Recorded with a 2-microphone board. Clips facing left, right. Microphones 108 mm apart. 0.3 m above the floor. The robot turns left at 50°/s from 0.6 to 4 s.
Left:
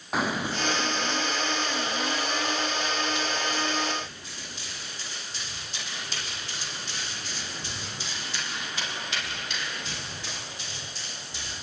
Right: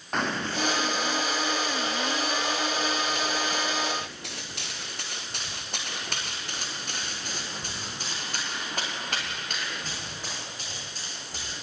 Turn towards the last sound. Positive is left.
turn(degrees=-45)  # may be behind; listen again after turning